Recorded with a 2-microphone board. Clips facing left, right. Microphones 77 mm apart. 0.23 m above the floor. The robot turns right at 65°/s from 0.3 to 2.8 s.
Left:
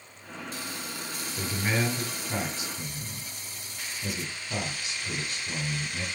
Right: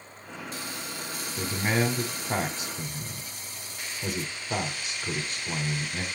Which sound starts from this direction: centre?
A man speaking, at 1.4 s.